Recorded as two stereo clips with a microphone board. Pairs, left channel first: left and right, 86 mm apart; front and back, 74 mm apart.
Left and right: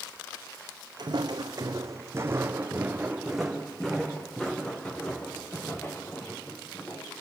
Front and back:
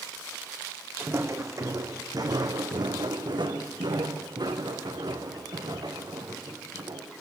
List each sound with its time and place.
1.0 s footsteps: 125° right, 2 m; by 7.1 s 155° left, 5 m